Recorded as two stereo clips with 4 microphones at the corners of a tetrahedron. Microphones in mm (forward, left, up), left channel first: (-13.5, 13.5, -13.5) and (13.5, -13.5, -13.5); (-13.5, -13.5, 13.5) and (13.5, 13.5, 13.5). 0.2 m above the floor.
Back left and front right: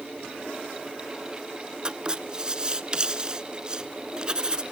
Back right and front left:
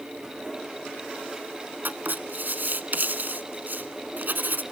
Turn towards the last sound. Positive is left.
turn(degrees=20)